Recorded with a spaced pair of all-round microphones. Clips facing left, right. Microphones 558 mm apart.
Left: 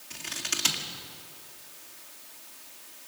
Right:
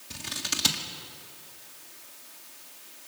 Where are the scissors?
65° right (ahead or behind), 1.7 m.